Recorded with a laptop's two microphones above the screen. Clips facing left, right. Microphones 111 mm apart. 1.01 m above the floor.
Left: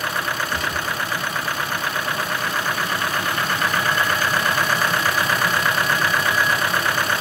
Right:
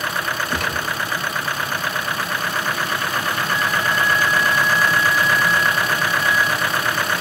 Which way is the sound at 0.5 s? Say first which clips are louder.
Right 1 dB; 85° right.